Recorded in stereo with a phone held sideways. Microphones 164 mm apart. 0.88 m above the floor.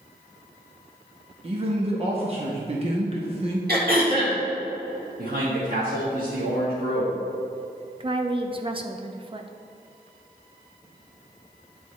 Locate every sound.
1.4 s a man speaking: 35° right (ahead or behind), 0.8 m
3.7 s throat clearing: 70° right (ahead or behind), 1.5 m
5.2 s a man speaking: 65° right (ahead or behind), 1.4 m
8.0 s a woman speaking: 30° right (ahead or behind), 0.6 m